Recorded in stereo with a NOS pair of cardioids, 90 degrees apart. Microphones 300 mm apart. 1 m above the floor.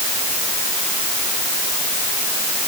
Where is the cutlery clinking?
No cutlery clinking in this recording.